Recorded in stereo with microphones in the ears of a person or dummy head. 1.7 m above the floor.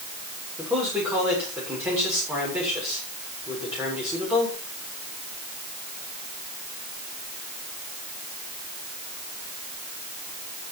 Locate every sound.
0.6 s a man speaking: 5° right (ahead or behind), 7 m